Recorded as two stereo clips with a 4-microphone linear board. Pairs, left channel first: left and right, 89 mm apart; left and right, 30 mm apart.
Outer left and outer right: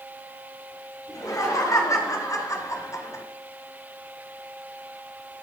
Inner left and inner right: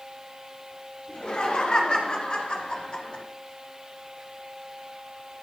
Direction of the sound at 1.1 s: 40° left (ahead or behind).